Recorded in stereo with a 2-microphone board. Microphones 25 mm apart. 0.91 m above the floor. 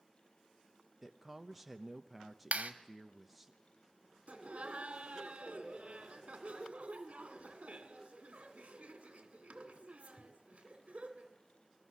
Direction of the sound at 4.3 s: 60° right (ahead or behind).